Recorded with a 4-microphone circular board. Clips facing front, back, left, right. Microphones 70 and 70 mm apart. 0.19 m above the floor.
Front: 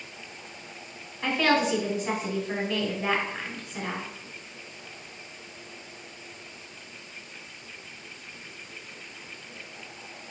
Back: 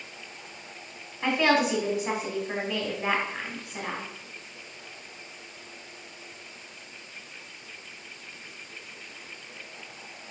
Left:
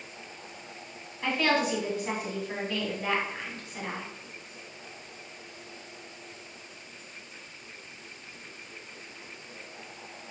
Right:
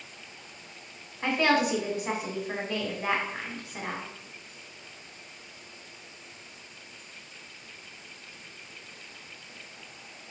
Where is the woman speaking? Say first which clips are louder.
Back 1 dB, right 2 dB; 125° right, 1.0 m.